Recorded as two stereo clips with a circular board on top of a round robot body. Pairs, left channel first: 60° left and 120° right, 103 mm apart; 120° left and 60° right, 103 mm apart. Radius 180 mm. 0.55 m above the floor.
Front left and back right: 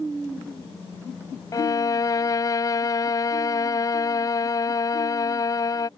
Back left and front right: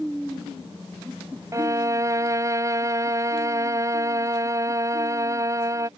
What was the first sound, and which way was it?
A violin, straight ahead.